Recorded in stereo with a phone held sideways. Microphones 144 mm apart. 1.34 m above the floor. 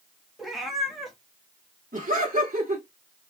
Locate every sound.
0.4 s a cat meowing: centre (ahead or behind), 0.9 m
1.9 s laughter: 70° right (ahead or behind), 1.2 m